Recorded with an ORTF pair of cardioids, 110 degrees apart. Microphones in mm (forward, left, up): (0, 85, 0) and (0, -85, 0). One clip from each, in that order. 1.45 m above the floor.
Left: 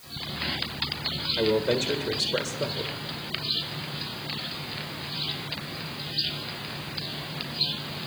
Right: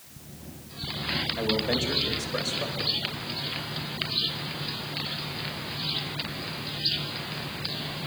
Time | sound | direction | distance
1.4 | a man speaking | 45° left | 1.7 m